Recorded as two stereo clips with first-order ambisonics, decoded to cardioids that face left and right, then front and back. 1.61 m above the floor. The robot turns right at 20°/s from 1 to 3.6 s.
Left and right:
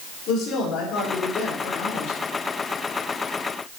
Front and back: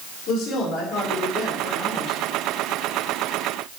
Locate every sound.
0.3 s a woman speaking: 40° left, 4 m; by 2.2 s 65° left, 4 m